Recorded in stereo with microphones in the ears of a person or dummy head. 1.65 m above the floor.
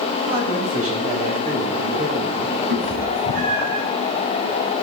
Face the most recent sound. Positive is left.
turn(degrees=-65)  # may be behind; listen again after turning